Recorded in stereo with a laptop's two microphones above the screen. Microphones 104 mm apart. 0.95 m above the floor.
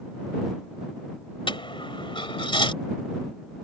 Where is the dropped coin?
55° left (ahead or behind).